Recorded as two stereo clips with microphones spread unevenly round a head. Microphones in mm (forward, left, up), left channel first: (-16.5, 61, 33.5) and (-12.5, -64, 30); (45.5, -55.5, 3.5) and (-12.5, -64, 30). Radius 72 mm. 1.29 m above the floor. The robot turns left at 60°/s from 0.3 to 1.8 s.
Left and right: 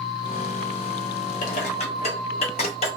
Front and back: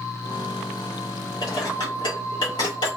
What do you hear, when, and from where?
1.4 s dishes clattering: 80° left, 0.7 m; by 3.0 s 55° left, 0.7 m